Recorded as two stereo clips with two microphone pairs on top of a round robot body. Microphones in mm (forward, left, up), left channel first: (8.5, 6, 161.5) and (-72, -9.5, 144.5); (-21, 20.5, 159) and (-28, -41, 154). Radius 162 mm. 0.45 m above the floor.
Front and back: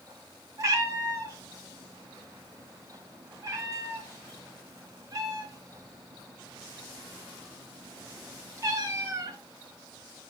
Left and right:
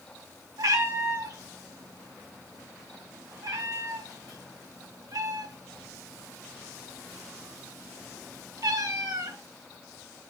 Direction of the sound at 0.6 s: 120° right.